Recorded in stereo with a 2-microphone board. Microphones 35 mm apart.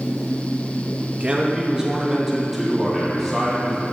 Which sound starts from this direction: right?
A man speaking, at 1.1 s.